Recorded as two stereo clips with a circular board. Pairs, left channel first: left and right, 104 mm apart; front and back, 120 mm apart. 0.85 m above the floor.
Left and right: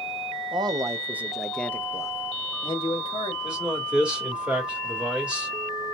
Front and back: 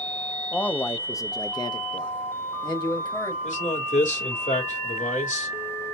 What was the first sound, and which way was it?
A man speaking, 75° right.